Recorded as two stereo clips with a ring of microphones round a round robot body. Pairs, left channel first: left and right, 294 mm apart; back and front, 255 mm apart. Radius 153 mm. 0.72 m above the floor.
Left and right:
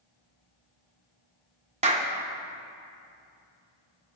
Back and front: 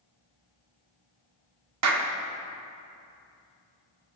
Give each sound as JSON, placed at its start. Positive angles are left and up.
{"t": 1.8, "sound": "a clap", "azimuth_deg": -20, "distance_m": 1.5}